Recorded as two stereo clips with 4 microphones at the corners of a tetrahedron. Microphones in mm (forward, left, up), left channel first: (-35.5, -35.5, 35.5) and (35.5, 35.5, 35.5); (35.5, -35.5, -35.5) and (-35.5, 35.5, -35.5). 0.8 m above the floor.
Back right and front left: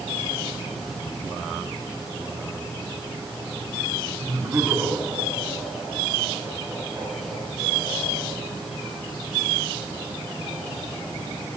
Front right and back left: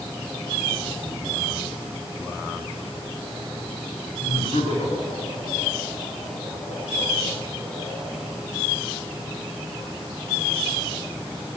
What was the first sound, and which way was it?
Laughter, 25° right.